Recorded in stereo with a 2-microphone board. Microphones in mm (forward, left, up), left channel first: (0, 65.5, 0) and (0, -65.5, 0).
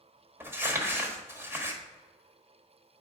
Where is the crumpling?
15° right (ahead or behind), 1.3 m.